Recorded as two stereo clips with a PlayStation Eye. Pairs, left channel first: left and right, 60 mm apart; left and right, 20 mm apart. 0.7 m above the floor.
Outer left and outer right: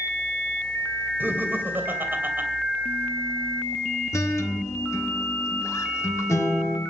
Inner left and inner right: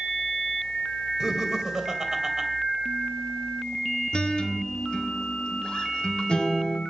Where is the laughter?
35° right (ahead or behind), 2.5 m.